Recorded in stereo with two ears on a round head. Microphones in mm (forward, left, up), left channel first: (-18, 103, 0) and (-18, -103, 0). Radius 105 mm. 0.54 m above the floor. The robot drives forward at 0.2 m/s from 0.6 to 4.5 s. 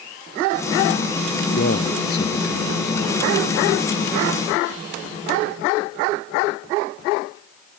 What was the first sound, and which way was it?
A man speaking, 45° left (ahead or behind).